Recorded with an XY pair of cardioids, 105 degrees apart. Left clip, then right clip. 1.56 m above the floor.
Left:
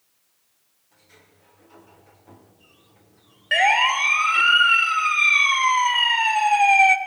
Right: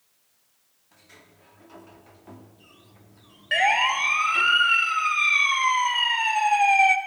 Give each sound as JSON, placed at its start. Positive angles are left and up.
{"t": 0.9, "sound": "a sliding door", "azimuth_deg": -45, "distance_m": 4.5}
{"t": 3.5, "sound": "a siren", "azimuth_deg": 15, "distance_m": 2.5}